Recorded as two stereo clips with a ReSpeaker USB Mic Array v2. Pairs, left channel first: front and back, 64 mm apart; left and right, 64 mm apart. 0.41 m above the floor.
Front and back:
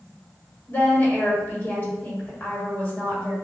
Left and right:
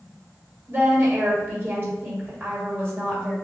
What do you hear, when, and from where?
0.7 s a woman speaking: 50° right, 1.7 m